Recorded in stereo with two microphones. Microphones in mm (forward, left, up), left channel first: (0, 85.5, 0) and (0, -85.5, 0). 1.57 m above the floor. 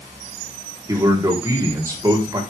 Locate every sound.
0.9 s a man speaking: 20° right (ahead or behind), 4 m